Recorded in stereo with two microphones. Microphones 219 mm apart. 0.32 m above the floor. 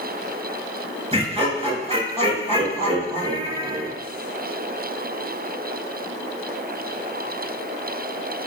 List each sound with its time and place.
1.1 s laughter: 25° right (ahead or behind), 6 m